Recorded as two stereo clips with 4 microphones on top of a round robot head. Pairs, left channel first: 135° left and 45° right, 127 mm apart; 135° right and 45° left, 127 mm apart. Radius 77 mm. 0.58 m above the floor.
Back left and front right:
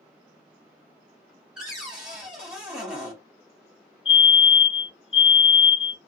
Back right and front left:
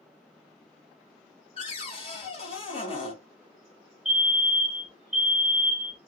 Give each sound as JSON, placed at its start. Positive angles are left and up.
{"t": 1.6, "sound": "a cupboard door", "azimuth_deg": -125, "distance_m": 1.4}
{"t": 4.0, "sound": "a fire alarm", "azimuth_deg": 135, "distance_m": 2.0}